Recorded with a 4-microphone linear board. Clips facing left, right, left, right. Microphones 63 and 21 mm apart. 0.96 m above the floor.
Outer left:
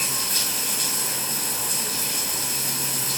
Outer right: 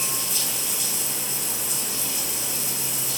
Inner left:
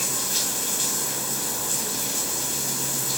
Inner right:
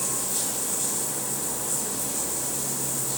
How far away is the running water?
About 3 m.